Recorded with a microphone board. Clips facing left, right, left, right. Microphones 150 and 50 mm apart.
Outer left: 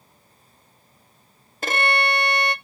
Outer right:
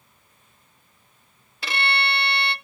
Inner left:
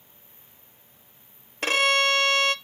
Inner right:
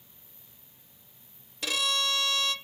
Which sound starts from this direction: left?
A violin, at 1.6 s.